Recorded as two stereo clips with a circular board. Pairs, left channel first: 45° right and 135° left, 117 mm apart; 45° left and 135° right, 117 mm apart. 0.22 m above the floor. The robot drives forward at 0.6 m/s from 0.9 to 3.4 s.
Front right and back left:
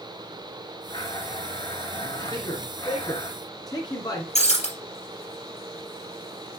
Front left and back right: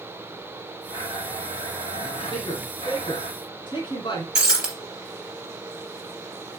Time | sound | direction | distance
0.9 | a blender | 10° left | 5 m
2.3 | a man speaking | 5° left | 3 m
4.3 | breaking glass | 55° right | 3 m